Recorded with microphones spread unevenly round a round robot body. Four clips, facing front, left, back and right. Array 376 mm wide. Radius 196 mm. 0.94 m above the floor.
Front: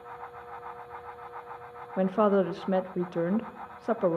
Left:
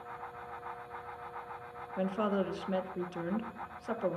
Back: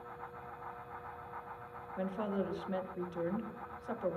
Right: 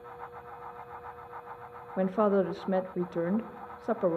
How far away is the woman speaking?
About 0.8 m.